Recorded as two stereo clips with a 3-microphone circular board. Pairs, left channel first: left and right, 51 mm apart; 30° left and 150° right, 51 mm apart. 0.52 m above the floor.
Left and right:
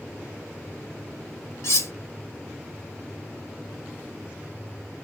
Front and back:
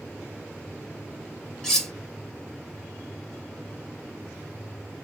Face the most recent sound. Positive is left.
turn(degrees=110)